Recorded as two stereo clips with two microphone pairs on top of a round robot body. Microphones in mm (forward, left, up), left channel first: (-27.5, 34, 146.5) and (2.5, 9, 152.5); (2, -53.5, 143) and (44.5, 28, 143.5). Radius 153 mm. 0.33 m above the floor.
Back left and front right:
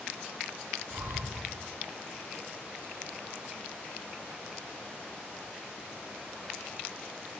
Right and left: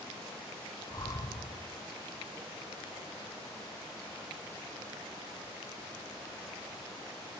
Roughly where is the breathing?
Ahead right.